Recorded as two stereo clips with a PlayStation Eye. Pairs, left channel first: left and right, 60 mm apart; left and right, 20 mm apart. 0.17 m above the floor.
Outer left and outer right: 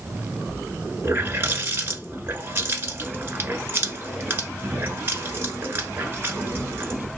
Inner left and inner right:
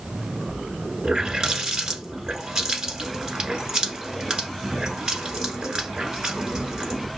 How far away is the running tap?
About 1.3 m.